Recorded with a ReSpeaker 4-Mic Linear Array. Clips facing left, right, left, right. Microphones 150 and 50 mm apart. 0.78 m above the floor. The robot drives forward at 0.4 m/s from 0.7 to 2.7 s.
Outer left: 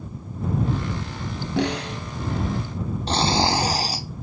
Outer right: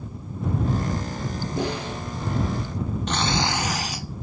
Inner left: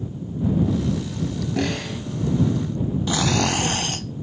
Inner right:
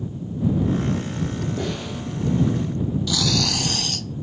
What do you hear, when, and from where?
1.6 s a snare drum: 80° left, 3 m
3.1 s snoring: 35° left (ahead or behind), 0.6 m